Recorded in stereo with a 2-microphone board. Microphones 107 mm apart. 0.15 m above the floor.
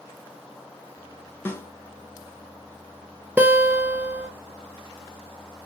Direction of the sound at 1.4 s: 20° left (ahead or behind).